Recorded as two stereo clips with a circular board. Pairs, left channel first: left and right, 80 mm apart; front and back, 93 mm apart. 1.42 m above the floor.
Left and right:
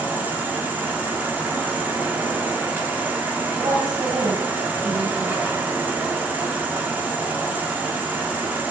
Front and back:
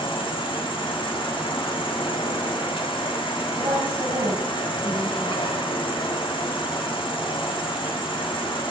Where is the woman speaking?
125° right, 9 m.